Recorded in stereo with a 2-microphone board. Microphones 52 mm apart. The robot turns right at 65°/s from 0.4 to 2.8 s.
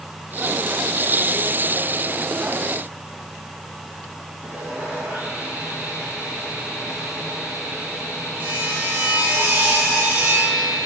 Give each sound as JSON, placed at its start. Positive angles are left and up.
{"t": 4.4, "sound": "sawing", "side_deg": -30, "distance_m": 5.5}